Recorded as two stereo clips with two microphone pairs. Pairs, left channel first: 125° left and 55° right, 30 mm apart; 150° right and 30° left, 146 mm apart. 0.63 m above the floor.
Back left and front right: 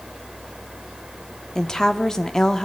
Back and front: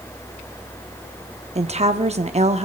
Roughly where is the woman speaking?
Ahead left.